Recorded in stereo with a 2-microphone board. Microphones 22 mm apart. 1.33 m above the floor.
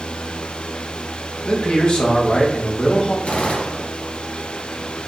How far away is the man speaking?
About 1.0 m.